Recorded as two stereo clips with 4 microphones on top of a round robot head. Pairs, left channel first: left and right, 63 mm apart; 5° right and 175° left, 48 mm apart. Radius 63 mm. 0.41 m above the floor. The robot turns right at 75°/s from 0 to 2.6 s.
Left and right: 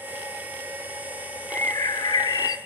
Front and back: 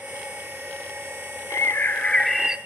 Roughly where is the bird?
Ahead.